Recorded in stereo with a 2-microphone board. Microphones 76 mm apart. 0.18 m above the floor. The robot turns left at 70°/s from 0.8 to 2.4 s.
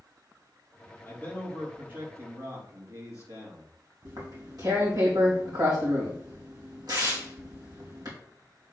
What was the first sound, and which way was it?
A man speaking, 30° left.